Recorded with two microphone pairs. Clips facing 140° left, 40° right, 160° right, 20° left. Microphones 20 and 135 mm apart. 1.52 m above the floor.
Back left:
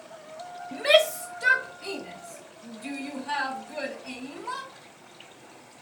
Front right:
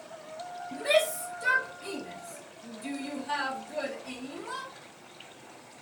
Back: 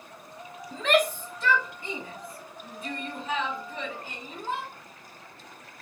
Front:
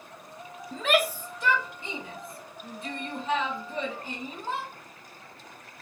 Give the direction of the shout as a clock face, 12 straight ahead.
8 o'clock.